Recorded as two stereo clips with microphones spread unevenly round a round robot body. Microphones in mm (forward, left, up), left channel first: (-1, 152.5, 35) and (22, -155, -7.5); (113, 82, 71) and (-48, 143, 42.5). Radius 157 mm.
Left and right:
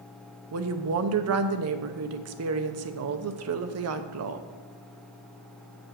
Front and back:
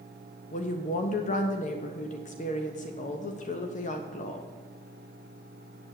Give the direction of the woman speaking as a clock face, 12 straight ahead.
2 o'clock.